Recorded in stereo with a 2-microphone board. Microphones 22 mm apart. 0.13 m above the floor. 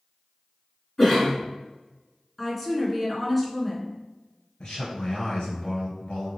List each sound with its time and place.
1.0 s a cough: 20° left (ahead or behind), 1.3 m
2.4 s a woman speaking: centre (ahead or behind), 1.1 m
4.6 s a man speaking: 50° left (ahead or behind), 1.6 m